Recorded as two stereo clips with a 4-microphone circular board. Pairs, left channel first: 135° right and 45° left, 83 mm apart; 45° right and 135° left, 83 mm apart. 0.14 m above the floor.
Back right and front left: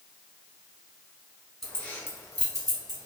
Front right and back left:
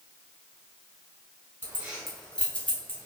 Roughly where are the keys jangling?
Behind left.